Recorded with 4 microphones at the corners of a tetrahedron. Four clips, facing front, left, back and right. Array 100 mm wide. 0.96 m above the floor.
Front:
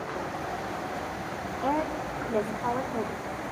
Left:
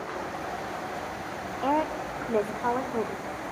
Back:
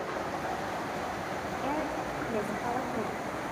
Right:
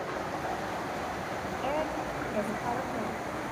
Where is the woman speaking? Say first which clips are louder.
Left 6 dB, front 5 dB; 80° left, 2.5 m.